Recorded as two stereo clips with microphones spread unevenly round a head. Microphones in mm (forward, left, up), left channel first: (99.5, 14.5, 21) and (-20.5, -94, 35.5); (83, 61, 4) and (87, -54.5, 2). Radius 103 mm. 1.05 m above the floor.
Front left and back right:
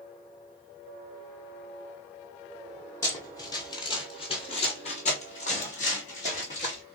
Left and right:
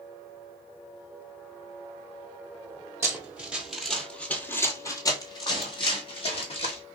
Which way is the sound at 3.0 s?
30° right.